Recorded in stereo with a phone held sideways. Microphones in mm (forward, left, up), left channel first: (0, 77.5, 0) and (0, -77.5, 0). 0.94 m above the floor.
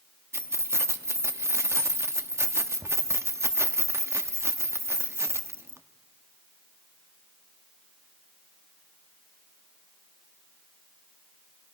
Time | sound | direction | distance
0.3 | keys jangling | 15° right (ahead or behind) | 0.9 m